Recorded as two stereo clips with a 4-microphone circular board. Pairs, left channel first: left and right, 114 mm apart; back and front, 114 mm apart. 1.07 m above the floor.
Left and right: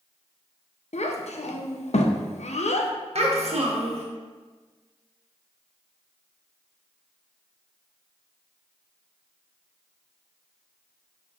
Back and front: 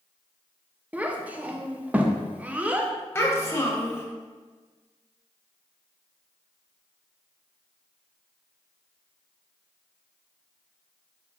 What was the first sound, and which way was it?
A child speaking, 80° left.